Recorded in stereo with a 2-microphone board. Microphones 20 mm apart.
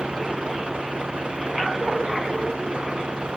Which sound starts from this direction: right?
A vehicle, at 0.0 s.